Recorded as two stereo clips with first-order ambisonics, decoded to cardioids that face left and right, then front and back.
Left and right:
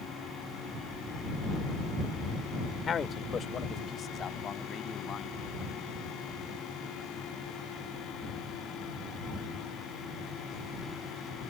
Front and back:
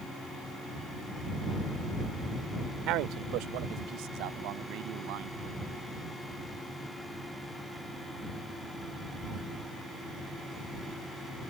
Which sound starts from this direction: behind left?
A man speaking, at 2.9 s.